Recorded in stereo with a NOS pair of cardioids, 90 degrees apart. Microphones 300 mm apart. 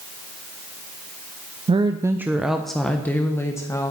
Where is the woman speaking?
20° right, 0.8 m; by 3.9 s 10° left, 1.8 m.